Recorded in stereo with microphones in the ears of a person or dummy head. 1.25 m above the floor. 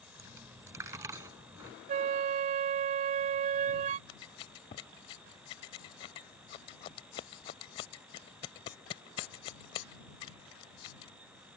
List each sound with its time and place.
0.2 s a dropped coin: 20° right (ahead or behind)
1.9 s a flute: 40° right (ahead or behind)
4.1 s scissors: 20° left (ahead or behind)